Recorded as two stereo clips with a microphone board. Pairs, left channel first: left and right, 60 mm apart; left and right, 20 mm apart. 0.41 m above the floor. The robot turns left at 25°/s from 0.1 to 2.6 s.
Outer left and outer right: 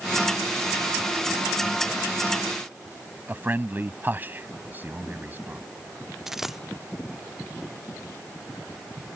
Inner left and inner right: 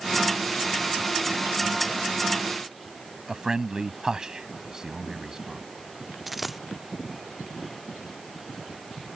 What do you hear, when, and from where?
3.3 s a man speaking: 30° right (ahead or behind)
6.3 s a dropped coin: 5° right (ahead or behind)